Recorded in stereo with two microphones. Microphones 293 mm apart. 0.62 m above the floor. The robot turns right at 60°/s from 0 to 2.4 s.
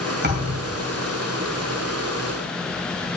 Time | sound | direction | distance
0.2 | a thud | 35° right (ahead or behind) | 1.5 m